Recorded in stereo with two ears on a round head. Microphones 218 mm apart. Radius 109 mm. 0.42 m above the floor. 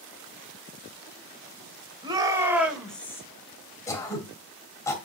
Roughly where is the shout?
Centre.